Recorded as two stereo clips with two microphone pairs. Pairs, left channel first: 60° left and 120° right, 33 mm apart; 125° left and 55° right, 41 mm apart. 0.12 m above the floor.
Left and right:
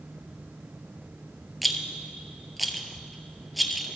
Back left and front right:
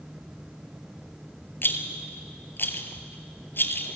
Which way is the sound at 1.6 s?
155° left.